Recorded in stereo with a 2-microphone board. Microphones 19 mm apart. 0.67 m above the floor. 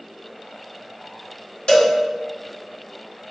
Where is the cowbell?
65° left (ahead or behind), 2.5 m.